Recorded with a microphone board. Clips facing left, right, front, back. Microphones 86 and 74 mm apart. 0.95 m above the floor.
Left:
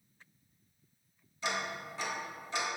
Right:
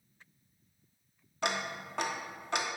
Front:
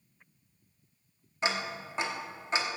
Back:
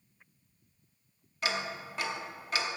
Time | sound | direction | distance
1.4 | ticking | 65° right | 0.9 m